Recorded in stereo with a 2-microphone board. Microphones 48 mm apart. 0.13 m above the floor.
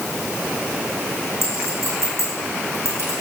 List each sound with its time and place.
1.4 s a clink: 65° right (ahead or behind), 6.5 m